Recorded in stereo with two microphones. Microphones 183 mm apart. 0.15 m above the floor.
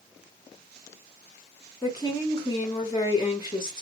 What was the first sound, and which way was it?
A woman speaking, 25° left (ahead or behind).